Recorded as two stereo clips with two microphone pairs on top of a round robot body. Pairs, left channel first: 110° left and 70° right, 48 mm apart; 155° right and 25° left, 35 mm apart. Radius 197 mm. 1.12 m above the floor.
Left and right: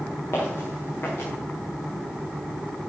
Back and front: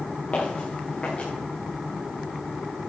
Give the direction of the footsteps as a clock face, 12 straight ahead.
7 o'clock.